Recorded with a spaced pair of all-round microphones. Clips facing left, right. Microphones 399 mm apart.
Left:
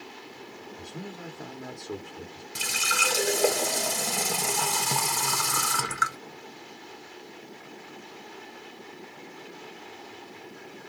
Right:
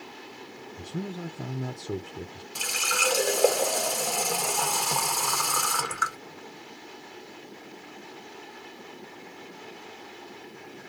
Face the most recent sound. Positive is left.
turn(degrees=30)  # may be behind; listen again after turning